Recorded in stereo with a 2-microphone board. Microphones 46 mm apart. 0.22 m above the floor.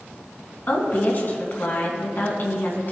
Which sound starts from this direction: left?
A woman speaking, at 0.7 s.